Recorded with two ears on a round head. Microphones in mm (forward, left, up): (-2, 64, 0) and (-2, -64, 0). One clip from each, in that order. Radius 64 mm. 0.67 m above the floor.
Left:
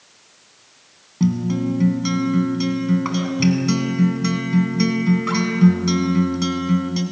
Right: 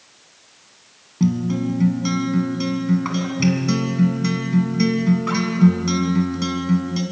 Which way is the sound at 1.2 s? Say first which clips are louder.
Even; 10° left (ahead or behind).